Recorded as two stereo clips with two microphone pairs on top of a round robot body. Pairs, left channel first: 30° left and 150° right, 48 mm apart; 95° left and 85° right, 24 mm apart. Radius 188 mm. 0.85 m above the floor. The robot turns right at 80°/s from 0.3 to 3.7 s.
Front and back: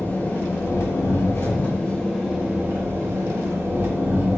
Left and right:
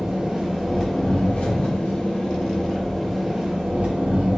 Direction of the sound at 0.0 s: 20° right.